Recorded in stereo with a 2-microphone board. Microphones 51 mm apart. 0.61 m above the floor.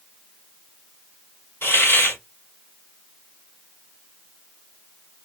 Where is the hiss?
55° left (ahead or behind), 2 m.